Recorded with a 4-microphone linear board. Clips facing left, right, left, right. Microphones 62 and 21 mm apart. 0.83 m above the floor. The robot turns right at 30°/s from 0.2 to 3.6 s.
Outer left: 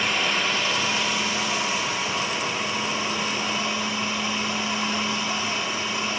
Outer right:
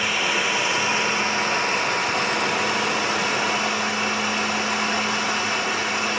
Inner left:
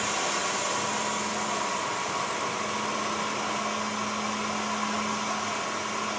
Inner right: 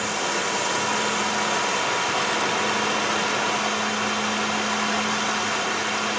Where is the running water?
175° right, 0.7 m; by 6.2 s 70° right, 0.7 m.